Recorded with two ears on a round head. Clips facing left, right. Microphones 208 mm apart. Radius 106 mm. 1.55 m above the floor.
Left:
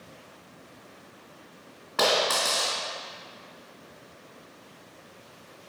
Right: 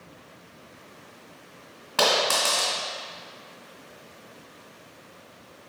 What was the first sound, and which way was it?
A dropped coin, 50° right (ahead or behind).